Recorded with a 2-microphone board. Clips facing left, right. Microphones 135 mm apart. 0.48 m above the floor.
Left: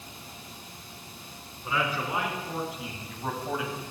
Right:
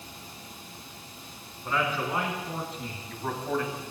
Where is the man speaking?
5° left (ahead or behind), 5.5 m; by 3.8 s 10° left (ahead or behind), 2.5 m.